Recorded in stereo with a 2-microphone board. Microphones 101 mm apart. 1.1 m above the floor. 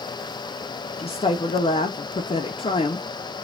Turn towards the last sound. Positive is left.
turn(degrees=60)  # may be behind; listen again after turning